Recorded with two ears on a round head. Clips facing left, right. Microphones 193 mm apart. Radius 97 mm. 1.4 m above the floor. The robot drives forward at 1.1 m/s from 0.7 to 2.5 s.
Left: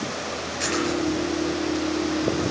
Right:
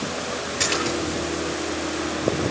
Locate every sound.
0.6 s a splash: 60° right (ahead or behind), 8 m